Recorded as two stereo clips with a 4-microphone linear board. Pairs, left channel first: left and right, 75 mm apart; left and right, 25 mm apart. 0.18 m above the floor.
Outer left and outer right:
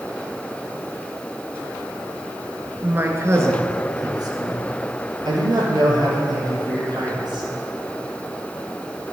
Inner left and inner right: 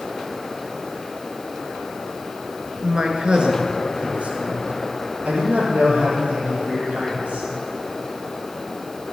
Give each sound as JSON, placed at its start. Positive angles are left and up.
{"t": 2.8, "sound": "a man speaking", "side_deg": -25, "distance_m": 2.5}